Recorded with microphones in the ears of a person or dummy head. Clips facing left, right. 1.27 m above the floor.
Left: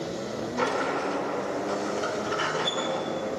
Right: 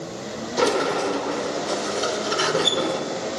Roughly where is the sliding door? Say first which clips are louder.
Right 8 dB; right.